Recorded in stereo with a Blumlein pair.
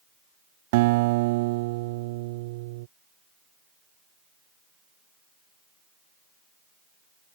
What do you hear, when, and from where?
0.7 s a guitar: 50° right